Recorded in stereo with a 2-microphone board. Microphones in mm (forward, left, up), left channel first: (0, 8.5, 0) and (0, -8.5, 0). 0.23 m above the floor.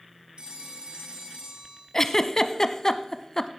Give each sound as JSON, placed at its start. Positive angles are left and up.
{"t": 0.4, "sound": "a phone ringing", "side_deg": -65, "distance_m": 4.0}
{"t": 1.9, "sound": "a giggle", "side_deg": 30, "distance_m": 0.7}